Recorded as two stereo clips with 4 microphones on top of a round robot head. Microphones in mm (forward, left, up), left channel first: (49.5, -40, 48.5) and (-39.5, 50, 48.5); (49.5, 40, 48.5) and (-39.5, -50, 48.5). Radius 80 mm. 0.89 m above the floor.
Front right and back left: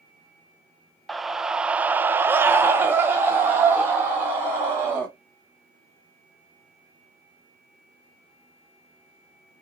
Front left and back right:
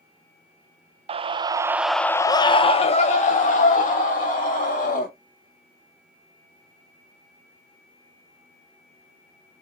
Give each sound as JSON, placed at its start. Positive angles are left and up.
{"t": 1.1, "sound": "a scream", "azimuth_deg": -135, "distance_m": 0.6}